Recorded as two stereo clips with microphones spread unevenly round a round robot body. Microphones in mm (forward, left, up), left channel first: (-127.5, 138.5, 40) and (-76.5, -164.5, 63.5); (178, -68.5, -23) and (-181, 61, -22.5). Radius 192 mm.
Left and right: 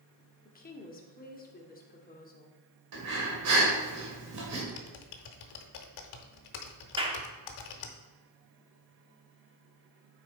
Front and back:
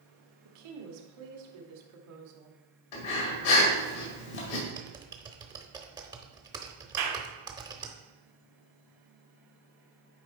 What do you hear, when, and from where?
0.5 s a woman speaking: 160° left, 1.6 m
2.9 s breathing: 35° right, 1.7 m
4.7 s typing on a keyboard: 80° left, 0.7 m
7.0 s a clap: 155° right, 1.3 m